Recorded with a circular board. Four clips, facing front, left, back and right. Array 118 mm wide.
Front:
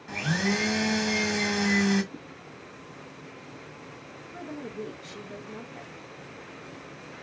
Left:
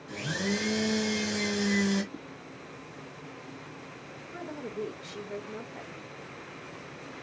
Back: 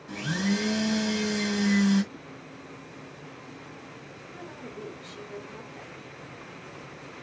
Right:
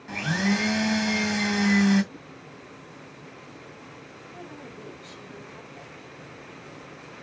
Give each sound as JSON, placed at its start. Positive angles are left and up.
{"t": 0.1, "sound": "a blender", "azimuth_deg": -60, "distance_m": 1.6}
{"t": 2.1, "sound": "a whoosh", "azimuth_deg": 40, "distance_m": 1.8}
{"t": 4.3, "sound": "a woman speaking", "azimuth_deg": 50, "distance_m": 2.0}